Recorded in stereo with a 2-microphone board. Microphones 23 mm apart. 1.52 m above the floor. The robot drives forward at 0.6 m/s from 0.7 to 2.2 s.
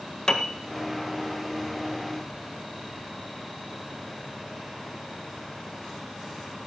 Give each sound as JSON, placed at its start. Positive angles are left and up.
{"t": 0.3, "sound": "a piano", "side_deg": 35, "distance_m": 1.6}